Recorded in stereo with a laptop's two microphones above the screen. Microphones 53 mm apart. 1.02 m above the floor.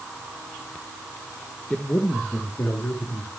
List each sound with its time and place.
1.7 s a man speaking: 15° left (ahead or behind), 0.6 m; by 3.3 s 65° left (ahead or behind), 3 m